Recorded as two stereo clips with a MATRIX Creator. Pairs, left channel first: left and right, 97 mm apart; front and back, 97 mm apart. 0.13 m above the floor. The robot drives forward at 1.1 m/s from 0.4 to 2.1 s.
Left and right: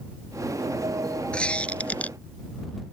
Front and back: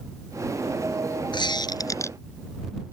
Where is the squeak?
15° left; by 2.2 s 30° left.